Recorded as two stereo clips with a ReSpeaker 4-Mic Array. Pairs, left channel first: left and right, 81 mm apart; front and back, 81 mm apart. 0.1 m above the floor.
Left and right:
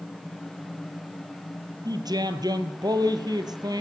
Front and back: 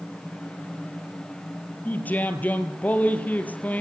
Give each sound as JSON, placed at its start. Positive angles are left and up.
{"t": 1.9, "sound": "a man speaking", "azimuth_deg": -70, "distance_m": 2.5}